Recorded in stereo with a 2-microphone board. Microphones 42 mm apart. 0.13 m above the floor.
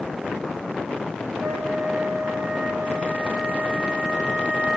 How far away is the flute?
About 7.5 m.